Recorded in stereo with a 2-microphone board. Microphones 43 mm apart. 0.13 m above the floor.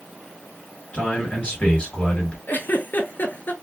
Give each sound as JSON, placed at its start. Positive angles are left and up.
{"t": 0.9, "sound": "a man speaking", "side_deg": 25, "distance_m": 1.8}
{"t": 2.5, "sound": "a giggle", "side_deg": 50, "distance_m": 0.6}